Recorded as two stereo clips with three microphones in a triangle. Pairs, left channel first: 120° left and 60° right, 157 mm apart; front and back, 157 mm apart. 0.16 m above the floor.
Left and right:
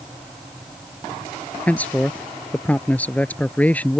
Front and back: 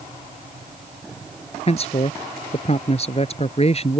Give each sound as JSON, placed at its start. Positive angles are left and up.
{"t": 1.7, "sound": "a man speaking", "azimuth_deg": 40}